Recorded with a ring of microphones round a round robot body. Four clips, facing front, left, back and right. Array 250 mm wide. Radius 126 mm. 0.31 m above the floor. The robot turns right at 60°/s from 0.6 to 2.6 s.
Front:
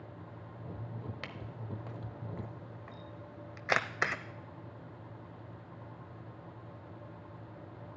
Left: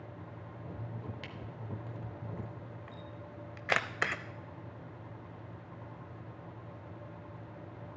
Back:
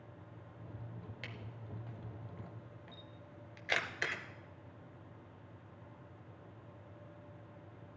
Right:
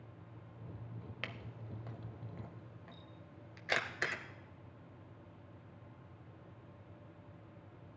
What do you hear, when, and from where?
1.2 s a camera shutter: 45° right, 0.9 m; by 4.2 s 40° left, 0.9 m